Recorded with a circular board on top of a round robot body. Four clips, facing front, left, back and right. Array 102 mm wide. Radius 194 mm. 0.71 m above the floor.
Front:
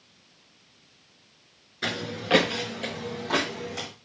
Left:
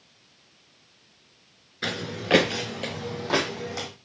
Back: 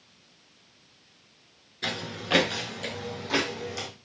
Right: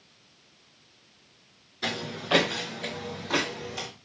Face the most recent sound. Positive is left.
turn(degrees=75)